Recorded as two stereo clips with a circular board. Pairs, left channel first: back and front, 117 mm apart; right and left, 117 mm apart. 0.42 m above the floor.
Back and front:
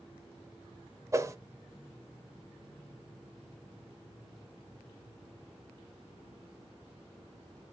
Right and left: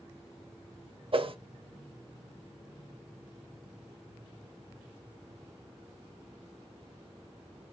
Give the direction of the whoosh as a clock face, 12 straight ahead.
10 o'clock.